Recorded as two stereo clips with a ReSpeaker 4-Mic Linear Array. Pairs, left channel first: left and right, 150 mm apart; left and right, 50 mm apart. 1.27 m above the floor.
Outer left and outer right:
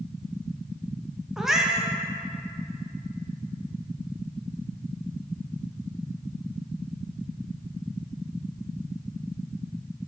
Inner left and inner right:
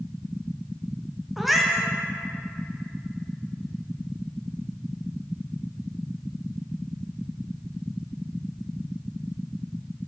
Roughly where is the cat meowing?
Centre.